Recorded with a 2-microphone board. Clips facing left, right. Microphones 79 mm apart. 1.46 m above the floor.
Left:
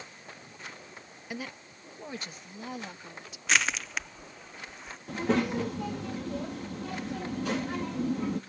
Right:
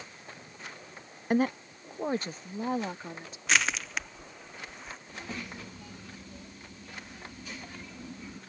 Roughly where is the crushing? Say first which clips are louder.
Even; centre.